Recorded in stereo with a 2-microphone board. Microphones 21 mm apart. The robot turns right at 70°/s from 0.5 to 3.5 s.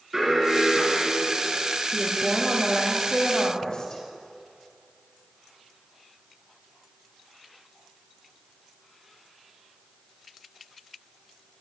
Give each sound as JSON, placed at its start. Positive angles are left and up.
{"t": 0.1, "sound": "an alarm", "azimuth_deg": -20, "distance_m": 4.0}
{"t": 1.9, "sound": "a woman speaking", "azimuth_deg": -45, "distance_m": 2.0}